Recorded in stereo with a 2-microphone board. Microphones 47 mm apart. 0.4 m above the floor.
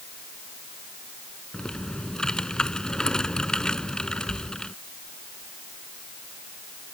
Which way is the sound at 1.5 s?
15° left (ahead or behind).